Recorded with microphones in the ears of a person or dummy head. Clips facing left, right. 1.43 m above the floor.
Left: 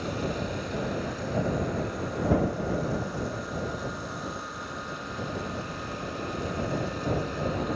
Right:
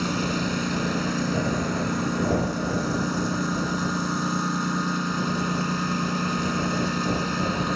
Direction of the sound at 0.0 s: 55° right (ahead or behind).